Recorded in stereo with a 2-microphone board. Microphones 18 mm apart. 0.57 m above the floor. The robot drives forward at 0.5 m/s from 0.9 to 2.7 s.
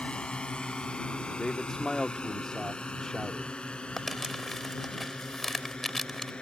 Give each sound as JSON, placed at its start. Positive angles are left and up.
{"t": 0.0, "sound": "a drone", "side_deg": 75}
{"t": 1.4, "sound": "a man speaking", "side_deg": 45}
{"t": 4.0, "sound": "crumpling", "side_deg": 15}